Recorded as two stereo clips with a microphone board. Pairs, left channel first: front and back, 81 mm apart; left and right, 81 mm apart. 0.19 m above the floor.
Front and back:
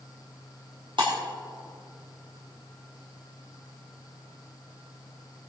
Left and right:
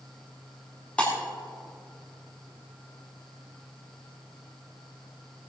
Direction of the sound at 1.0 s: 165° left.